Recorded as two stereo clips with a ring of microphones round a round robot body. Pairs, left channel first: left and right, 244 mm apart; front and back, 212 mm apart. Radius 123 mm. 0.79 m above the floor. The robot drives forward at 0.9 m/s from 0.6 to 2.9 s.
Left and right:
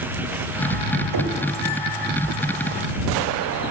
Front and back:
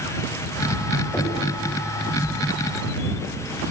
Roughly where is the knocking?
Right.